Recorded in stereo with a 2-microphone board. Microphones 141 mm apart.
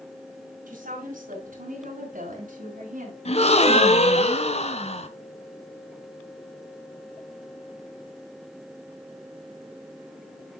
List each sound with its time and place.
0.7 s a woman speaking: 65° right (ahead or behind), 4 m
3.2 s a gasp: 50° left (ahead or behind), 1.1 m